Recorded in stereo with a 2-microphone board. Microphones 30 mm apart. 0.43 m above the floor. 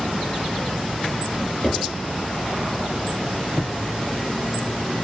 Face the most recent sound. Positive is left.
turn(degrees=35)  # may be behind; listen again after turning